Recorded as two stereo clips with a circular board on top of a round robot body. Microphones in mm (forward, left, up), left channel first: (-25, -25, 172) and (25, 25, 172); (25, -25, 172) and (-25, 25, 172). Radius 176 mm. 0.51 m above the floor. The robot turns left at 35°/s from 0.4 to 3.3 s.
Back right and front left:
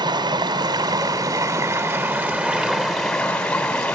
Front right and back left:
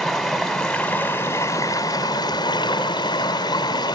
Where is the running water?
45° left, 2.5 m; by 4.0 s 55° right, 2.5 m.